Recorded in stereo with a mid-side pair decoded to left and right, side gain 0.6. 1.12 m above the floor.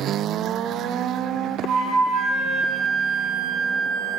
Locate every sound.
1.7 s a flute: 60° right, 1.6 m